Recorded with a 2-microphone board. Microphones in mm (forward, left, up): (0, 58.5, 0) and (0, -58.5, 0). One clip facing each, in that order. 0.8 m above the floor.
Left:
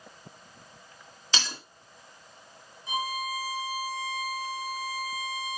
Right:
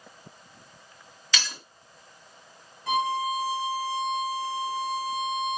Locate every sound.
1.3 s breaking glass: 30° left (ahead or behind), 4 m
2.9 s a violin: 80° right, 3.5 m